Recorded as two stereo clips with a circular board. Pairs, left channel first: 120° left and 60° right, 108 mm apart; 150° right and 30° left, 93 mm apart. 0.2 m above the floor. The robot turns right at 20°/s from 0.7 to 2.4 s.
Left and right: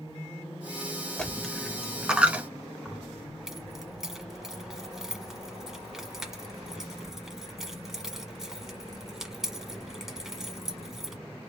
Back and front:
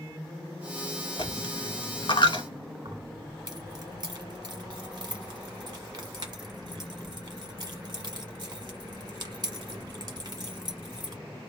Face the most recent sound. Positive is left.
turn(degrees=25)